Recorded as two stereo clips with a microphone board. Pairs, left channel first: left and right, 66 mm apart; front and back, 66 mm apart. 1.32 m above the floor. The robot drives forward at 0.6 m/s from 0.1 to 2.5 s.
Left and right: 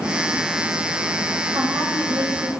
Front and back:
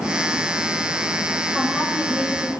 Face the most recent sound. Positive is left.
turn(degrees=-110)